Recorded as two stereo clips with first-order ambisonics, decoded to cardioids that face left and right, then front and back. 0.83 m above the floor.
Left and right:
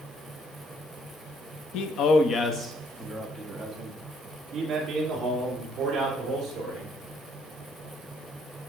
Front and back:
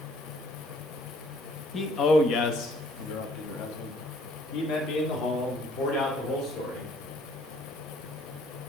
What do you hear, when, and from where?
1.7 s a man speaking: 65° left, 0.7 m; by 6.9 s 30° right, 3 m